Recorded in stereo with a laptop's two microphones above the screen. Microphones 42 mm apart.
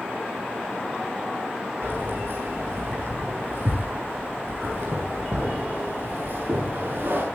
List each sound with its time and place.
1.8 s keys jangling: 55° right (ahead or behind), 7.5 m